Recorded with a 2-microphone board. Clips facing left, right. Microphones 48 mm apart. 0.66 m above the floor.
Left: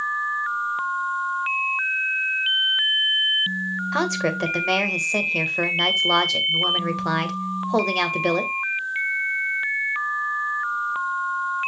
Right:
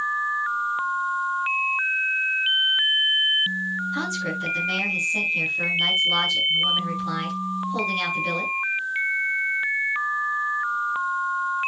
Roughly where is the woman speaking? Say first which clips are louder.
Left 4 dB; left.